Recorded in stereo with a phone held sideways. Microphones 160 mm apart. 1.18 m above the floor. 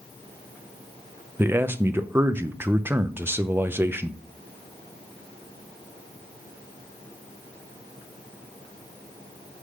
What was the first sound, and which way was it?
A man speaking, 15° right (ahead or behind).